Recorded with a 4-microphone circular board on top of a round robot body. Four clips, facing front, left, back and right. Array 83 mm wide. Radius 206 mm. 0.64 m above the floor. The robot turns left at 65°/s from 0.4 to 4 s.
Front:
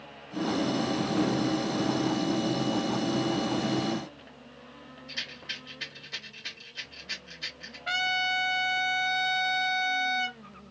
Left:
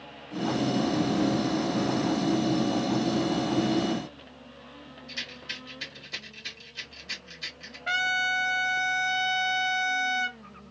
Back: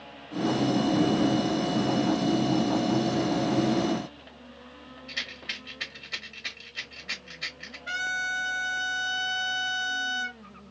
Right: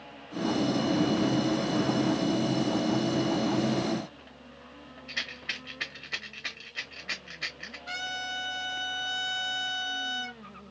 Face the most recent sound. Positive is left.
turn(degrees=70)